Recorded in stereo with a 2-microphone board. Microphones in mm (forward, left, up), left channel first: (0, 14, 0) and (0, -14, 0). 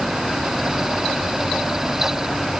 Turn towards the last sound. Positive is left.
No sound to turn to.